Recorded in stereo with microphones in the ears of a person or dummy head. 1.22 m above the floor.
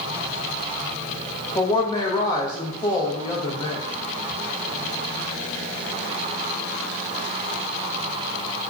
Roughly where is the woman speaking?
Centre.